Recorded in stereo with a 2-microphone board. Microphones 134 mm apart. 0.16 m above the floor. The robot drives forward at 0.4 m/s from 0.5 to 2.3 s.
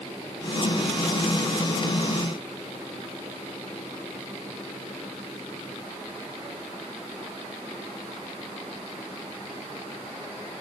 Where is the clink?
No clink in this recording.